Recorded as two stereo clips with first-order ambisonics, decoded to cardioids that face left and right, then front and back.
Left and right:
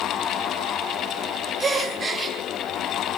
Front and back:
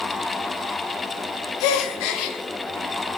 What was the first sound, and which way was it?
A gasp, 15° right.